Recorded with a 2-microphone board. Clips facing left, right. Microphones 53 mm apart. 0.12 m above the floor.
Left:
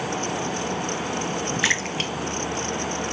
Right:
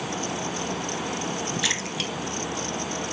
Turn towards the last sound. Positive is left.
turn(degrees=40)  # may be behind; listen again after turning